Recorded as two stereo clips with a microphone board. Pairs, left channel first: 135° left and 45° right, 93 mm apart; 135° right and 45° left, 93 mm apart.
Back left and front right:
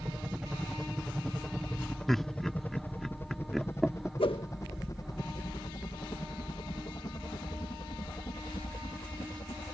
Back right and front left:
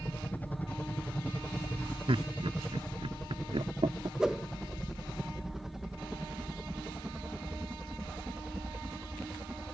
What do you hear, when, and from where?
0.0 s a helicopter: 110° right; by 9.8 s 120° left
2.1 s laughter: 50° left
4.2 s a whoosh: 125° left